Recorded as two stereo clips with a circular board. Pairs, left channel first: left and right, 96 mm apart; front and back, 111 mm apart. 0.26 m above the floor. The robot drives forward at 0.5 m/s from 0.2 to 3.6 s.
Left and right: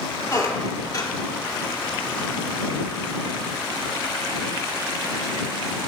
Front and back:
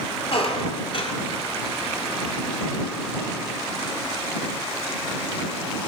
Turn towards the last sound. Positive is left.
turn(degrees=85)